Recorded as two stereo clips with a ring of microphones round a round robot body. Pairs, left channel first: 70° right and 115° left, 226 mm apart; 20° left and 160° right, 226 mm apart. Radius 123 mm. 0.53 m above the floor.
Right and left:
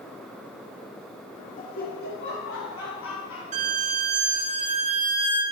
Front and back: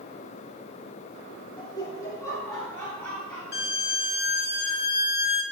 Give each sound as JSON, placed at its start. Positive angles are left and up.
{"t": 1.6, "sound": "laughter", "azimuth_deg": -35, "distance_m": 1.1}
{"t": 3.5, "sound": "a violin", "azimuth_deg": 60, "distance_m": 2.5}